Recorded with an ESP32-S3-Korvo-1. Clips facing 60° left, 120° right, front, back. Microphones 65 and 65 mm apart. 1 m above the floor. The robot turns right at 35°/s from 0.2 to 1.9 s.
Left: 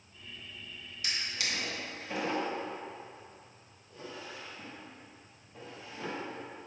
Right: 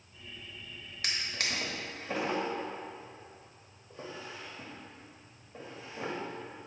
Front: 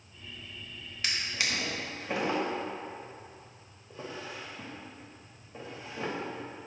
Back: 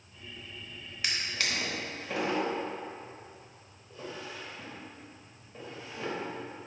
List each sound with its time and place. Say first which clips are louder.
1.0 s a drawer: right 1 dB, even; 95° right, 0.8 m; by 6.1 s 60° right, 0.8 m